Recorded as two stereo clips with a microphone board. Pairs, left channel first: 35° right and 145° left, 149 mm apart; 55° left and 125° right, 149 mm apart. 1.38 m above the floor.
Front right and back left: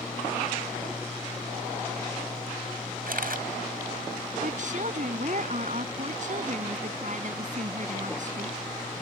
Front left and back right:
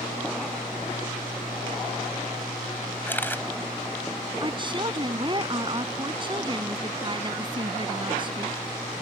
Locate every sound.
3.1 s a camera shutter: 135° left
4.4 s a woman speaking: straight behind